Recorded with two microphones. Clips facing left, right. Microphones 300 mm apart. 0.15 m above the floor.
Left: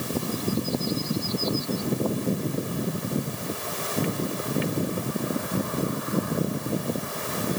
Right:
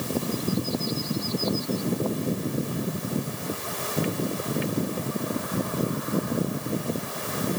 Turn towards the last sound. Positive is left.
No sound to turn to.